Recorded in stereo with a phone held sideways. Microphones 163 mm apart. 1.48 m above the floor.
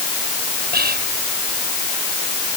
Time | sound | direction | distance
0.7 | whispering | 75° right (ahead or behind) | ?